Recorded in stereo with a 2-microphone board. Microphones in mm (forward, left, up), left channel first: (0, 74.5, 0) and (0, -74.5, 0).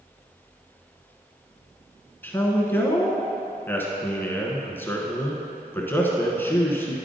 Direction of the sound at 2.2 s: 15° left (ahead or behind).